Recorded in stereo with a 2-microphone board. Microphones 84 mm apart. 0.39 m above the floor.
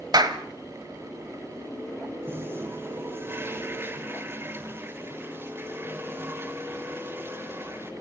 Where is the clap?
55° right (ahead or behind), 1.5 m.